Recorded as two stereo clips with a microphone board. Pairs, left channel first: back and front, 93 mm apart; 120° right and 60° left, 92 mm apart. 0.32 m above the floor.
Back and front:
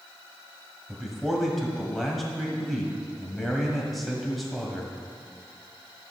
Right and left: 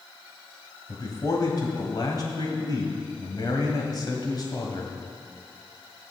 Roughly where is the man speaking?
Right.